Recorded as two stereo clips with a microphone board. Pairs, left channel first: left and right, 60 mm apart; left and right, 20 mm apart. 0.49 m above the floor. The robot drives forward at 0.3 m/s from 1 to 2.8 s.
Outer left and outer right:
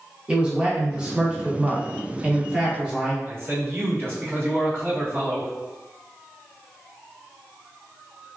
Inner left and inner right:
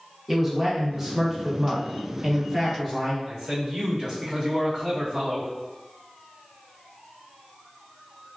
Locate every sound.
0.3 s a man speaking: 15° right (ahead or behind), 0.8 m; by 3.1 s 20° right (ahead or behind), 0.7 m
3.2 s a man speaking: 40° right (ahead or behind), 1.4 m